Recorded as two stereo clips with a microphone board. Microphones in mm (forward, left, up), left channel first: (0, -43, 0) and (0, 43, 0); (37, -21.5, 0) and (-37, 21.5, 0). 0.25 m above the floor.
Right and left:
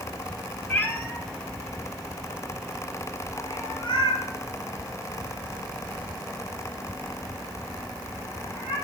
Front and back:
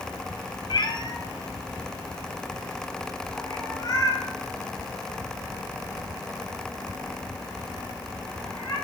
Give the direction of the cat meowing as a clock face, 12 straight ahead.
1 o'clock.